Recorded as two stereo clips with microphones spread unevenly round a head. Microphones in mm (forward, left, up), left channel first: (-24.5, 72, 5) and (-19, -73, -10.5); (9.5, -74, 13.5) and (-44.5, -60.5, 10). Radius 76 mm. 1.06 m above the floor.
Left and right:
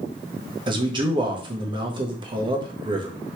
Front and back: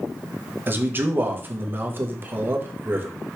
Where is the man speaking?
145° right, 1.1 m.